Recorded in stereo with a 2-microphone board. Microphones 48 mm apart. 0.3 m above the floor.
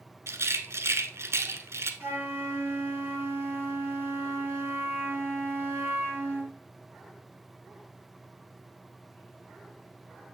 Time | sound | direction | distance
0.3 | a rattle | 70° right (ahead or behind) | 0.9 m
2.0 | a flute | 55° right (ahead or behind) | 4 m